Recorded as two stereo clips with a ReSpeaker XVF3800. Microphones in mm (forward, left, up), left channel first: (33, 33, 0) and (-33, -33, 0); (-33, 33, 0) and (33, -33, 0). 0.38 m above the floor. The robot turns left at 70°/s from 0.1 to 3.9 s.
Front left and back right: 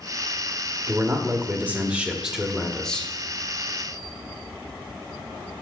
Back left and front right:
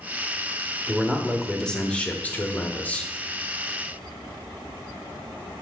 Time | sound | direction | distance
0.9 | a man speaking | 105° right | 0.8 m